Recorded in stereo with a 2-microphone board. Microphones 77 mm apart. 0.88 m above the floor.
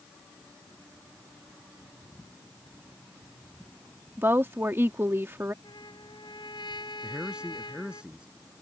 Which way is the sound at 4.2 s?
30° right (ahead or behind).